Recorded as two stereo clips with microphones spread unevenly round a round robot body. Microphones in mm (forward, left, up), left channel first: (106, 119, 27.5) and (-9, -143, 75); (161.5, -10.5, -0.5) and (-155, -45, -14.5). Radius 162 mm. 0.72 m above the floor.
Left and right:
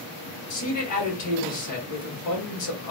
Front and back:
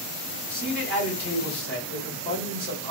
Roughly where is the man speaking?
Left.